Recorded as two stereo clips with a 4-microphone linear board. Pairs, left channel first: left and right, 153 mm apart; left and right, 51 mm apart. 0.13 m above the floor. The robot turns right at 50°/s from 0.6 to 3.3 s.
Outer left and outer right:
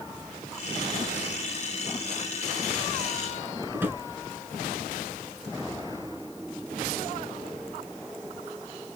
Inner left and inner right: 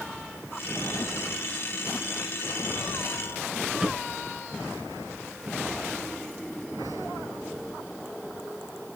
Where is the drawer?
15° right (ahead or behind), 1.1 m.